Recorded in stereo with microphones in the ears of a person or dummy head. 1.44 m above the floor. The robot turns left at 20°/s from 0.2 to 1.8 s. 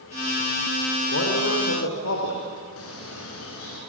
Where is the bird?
80° left, 6 m.